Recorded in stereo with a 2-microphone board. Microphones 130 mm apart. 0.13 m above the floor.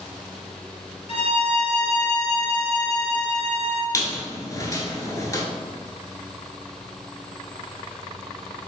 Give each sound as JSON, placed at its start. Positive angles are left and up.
{"t": 1.1, "sound": "a violin", "side_deg": 45, "distance_m": 1.0}
{"t": 3.9, "sound": "a squeak", "side_deg": 25, "distance_m": 1.1}